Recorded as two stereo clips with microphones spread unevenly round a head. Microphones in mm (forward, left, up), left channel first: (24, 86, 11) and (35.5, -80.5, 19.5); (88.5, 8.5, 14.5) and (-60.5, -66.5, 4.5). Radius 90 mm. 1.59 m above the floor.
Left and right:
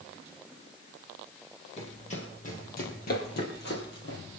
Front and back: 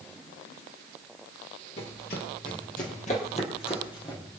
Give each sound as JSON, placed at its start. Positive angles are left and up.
{"t": 1.8, "sound": "running footsteps", "azimuth_deg": 45, "distance_m": 3.5}